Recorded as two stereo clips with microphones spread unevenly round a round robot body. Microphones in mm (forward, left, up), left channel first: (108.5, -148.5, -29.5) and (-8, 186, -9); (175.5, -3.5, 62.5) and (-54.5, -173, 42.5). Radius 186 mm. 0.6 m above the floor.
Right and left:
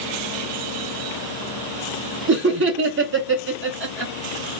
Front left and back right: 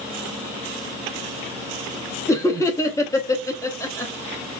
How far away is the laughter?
About 0.6 m.